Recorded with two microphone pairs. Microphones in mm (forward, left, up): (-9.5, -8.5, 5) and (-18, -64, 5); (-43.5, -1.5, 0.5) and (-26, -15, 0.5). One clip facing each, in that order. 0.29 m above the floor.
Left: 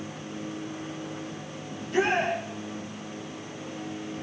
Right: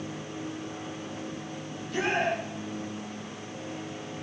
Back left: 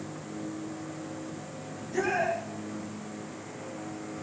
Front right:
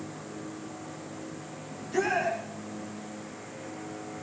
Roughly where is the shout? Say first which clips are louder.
Left 4 dB, front right 1 dB; ahead.